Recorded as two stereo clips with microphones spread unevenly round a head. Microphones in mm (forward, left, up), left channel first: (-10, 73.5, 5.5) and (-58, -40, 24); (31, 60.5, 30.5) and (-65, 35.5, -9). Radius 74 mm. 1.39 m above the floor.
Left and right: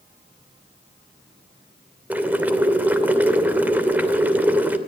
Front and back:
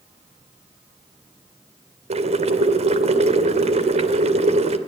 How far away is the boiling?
About 2.5 m.